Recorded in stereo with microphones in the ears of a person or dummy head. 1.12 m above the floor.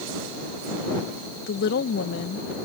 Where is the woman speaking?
60° left (ahead or behind).